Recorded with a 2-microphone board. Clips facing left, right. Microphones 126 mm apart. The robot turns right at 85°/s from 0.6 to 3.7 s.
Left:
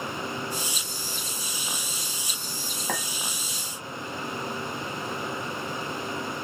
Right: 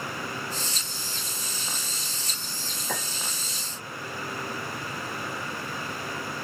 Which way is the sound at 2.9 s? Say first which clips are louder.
Left 2 dB; 55° left (ahead or behind).